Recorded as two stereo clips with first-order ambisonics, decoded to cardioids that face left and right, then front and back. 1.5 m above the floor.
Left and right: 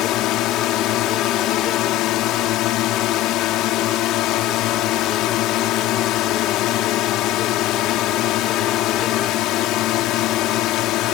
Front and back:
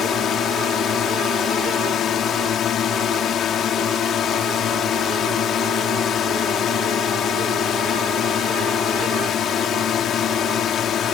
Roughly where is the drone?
Ahead left.